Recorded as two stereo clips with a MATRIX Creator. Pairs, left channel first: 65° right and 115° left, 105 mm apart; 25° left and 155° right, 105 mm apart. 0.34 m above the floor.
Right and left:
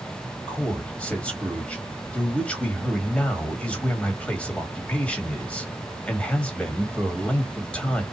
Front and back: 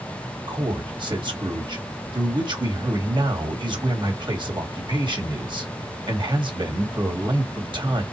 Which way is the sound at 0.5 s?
145° right.